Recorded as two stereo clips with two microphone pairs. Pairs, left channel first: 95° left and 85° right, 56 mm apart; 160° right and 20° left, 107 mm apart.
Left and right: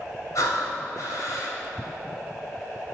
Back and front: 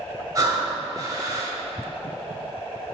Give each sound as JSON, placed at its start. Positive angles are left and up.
{"t": 0.3, "sound": "breathing", "azimuth_deg": 75, "distance_m": 2.0}